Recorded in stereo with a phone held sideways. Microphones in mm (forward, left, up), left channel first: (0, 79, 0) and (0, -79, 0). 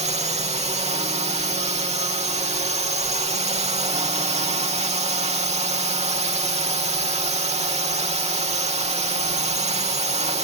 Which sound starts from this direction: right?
A drone, at 0.0 s.